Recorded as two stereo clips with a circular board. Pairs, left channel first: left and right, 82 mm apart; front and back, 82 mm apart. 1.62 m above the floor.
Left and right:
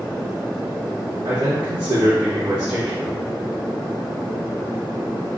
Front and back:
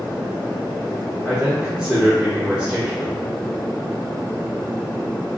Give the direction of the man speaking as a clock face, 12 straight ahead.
3 o'clock.